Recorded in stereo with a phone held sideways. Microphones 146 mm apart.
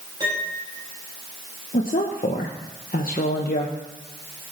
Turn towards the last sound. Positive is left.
turn(degrees=75)  # may be behind; listen again after turning